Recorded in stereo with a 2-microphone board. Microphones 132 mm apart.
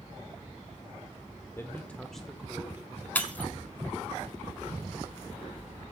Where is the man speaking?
20° left (ahead or behind), 0.7 m; by 3.0 s 15° right (ahead or behind), 1.2 m.